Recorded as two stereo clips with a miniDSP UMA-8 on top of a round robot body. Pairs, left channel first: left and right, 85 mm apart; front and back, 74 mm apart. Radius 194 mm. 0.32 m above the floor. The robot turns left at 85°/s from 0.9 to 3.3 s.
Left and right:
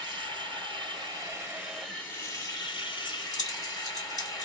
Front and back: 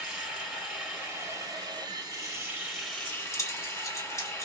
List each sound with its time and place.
0.0 s running water: 105° right, 1.8 m; by 4.5 s 50° left, 1.8 m
3.0 s keys jangling: 65° left, 2 m; by 4.5 s 45° left, 2 m